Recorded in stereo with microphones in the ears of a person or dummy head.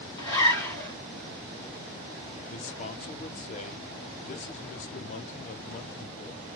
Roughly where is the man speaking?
Left.